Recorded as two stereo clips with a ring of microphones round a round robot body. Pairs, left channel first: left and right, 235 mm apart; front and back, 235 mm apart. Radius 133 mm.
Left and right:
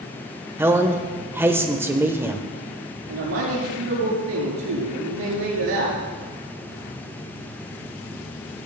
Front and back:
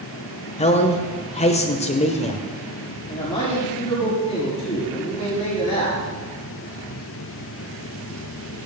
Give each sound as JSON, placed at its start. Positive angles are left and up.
{"t": 0.6, "sound": "a man speaking", "azimuth_deg": -20, "distance_m": 1.0}
{"t": 3.1, "sound": "a man speaking", "azimuth_deg": -70, "distance_m": 7.0}